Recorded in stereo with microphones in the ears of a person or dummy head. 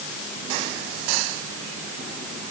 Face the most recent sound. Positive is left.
No sound to turn to.